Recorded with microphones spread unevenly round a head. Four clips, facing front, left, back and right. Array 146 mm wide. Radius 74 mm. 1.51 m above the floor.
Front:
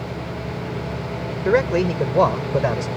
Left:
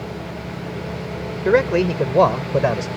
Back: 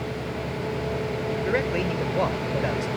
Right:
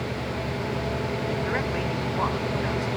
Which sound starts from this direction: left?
A man speaking, at 1.4 s.